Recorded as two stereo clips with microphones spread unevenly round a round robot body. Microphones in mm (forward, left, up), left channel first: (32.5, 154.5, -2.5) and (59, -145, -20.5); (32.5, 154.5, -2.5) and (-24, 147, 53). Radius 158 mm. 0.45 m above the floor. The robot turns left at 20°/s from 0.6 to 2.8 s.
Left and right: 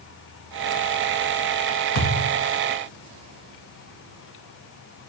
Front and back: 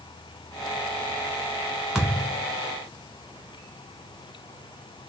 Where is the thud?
105° left, 1.5 m; by 2.5 s 95° left, 1.5 m.